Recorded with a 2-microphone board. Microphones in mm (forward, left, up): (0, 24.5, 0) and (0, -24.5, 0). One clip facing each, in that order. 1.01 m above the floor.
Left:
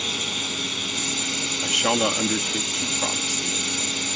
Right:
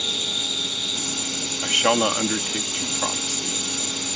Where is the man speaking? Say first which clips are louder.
Right 3 dB; 35° right (ahead or behind).